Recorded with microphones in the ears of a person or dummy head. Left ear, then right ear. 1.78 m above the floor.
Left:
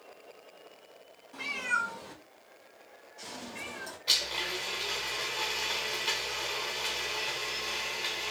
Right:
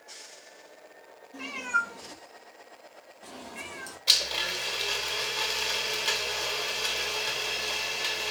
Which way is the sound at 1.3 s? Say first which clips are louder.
Right 2 dB; 55° left (ahead or behind).